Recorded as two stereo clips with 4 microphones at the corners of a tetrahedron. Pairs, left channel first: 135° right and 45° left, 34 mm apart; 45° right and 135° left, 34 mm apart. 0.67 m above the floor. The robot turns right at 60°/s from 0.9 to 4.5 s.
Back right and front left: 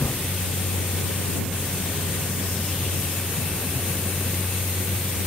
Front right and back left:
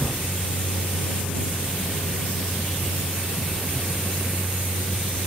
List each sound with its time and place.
0.0 s a vehicle: 110° right; by 5.3 s 105° left